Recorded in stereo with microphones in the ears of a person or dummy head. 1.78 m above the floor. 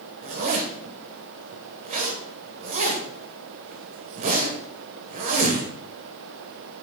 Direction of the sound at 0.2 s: 40° right (ahead or behind).